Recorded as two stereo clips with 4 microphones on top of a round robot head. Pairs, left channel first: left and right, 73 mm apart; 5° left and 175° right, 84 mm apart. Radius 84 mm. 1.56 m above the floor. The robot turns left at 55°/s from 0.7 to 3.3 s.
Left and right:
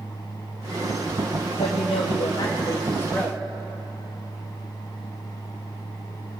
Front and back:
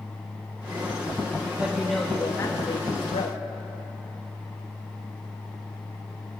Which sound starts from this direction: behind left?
A woman speaking, at 1.6 s.